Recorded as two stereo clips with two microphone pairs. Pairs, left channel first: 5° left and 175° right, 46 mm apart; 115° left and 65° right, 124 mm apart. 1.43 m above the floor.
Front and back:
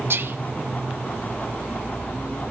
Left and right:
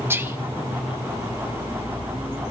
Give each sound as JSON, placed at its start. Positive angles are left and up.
{"t": 0.1, "sound": "whispering", "azimuth_deg": -140, "distance_m": 1.4}